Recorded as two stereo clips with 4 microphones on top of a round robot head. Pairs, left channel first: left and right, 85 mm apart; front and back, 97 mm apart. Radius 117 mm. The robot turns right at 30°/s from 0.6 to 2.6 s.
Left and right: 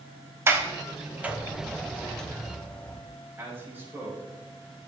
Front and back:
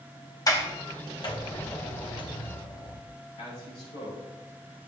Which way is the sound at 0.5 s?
40° right.